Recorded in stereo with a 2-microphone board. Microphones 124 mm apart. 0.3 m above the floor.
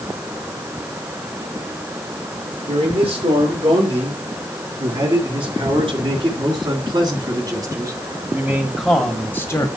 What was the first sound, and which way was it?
A man speaking, 55° right (ahead or behind).